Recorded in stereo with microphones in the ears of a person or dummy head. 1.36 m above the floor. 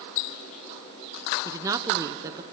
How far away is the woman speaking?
About 0.7 m.